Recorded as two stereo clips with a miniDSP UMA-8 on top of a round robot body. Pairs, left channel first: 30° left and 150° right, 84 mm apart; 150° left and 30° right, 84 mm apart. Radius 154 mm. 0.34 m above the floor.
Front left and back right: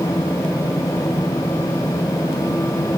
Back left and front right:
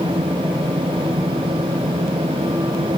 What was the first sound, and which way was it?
Only background noise.